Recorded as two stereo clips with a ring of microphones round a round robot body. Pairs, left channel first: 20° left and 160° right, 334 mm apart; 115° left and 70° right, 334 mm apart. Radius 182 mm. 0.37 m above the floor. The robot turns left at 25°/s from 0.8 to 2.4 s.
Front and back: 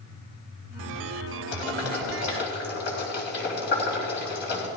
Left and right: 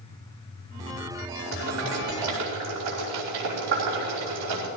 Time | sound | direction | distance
1.5 | boiling | 15° right | 4.5 m